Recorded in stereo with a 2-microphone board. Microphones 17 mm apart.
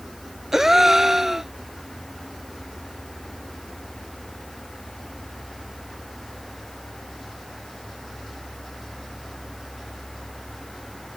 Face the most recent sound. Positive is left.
turn(degrees=-25)  # may be behind; listen again after turning